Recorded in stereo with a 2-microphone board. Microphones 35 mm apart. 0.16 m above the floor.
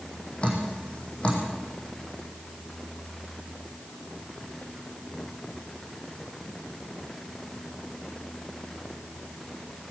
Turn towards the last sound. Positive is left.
turn(degrees=35)  # may be behind; listen again after turning